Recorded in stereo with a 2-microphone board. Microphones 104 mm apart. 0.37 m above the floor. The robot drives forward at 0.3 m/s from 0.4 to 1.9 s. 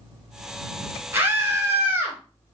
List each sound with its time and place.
1.1 s a scream: 25° right (ahead or behind), 1.8 m